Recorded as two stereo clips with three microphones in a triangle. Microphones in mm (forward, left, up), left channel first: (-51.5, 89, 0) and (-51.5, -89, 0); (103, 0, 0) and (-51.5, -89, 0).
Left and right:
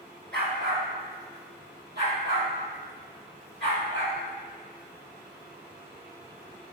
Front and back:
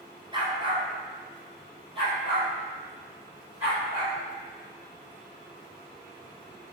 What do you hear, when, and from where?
0.3 s a dog barking: 90° right, 1.0 m